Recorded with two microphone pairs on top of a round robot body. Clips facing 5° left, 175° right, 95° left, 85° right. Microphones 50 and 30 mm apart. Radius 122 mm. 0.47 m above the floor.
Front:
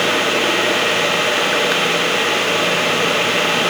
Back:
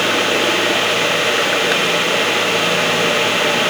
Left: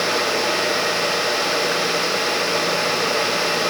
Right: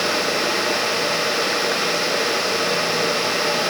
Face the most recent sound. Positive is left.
No sound to turn to.